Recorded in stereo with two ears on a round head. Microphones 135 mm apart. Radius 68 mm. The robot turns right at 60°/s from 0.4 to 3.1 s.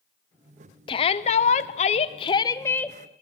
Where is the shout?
50° left, 0.7 m; by 3.0 s 175° left, 0.7 m.